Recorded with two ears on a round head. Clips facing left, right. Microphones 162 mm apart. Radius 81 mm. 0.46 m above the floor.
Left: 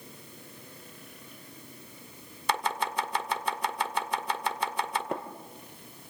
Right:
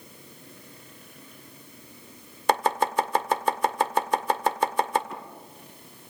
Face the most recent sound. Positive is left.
turn(degrees=45)  # may be behind; listen again after turning